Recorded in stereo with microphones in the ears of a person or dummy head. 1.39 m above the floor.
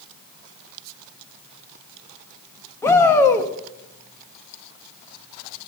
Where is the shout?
15° left (ahead or behind), 1.5 m.